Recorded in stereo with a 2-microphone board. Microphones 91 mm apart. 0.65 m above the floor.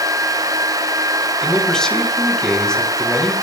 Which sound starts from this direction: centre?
A man speaking, at 1.4 s.